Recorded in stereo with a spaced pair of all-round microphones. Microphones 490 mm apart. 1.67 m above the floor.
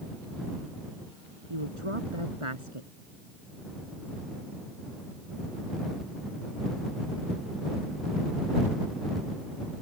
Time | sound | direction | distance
1.5 | a woman speaking | 90° right | ?